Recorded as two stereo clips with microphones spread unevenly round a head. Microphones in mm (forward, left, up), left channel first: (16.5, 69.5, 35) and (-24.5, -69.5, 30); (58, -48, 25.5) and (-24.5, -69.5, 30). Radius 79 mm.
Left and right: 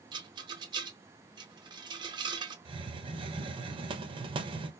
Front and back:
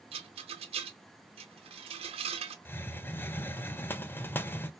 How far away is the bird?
I don't hear a bird.